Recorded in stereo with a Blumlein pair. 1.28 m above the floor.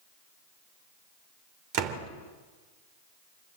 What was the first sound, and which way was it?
A door slam, 45° right.